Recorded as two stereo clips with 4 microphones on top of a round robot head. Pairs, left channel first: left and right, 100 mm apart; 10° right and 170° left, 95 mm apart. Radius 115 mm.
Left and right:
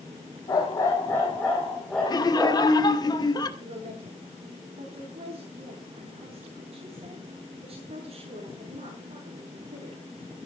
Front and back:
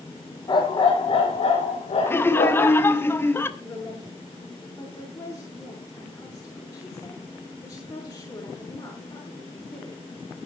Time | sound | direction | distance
0.5 | a dog barking | 30° left | 5 m
2.1 | laughter | 55° left | 2 m
3.6 | a woman speaking | 75° right | 7 m